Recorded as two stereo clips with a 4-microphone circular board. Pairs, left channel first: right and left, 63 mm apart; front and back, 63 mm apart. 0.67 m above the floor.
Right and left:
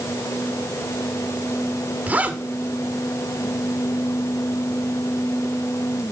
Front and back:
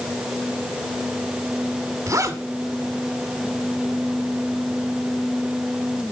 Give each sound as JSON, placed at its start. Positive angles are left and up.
{"t": 2.1, "sound": "a zipper", "azimuth_deg": 155, "distance_m": 1.9}